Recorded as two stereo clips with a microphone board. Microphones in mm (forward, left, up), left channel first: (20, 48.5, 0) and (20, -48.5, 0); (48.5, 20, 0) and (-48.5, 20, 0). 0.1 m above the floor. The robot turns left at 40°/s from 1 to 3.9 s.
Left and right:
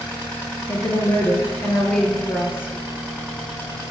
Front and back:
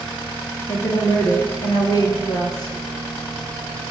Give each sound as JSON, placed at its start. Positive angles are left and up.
{"t": 0.7, "sound": "a woman speaking", "azimuth_deg": 50, "distance_m": 2.5}